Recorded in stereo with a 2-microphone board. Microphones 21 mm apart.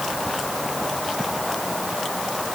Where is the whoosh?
I don't hear a whoosh.